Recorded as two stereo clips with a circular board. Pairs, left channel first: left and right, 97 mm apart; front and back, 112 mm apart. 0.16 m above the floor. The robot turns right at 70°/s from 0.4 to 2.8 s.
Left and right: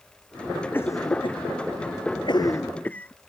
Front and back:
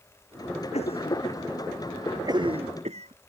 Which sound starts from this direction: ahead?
A cough, at 0.7 s.